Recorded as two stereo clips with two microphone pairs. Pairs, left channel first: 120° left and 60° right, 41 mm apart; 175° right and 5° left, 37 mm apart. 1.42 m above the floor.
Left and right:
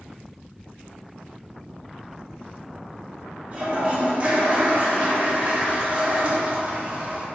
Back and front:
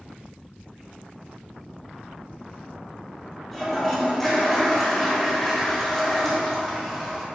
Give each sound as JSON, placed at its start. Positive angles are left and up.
{"t": 3.5, "sound": "a toilet flushing", "azimuth_deg": -95, "distance_m": 0.8}